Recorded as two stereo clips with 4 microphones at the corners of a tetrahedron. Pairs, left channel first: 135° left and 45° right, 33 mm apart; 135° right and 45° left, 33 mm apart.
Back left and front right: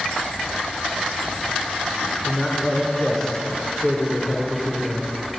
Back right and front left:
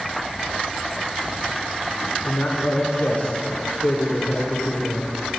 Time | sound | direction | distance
2.2 | a man speaking | 145° right | 2 m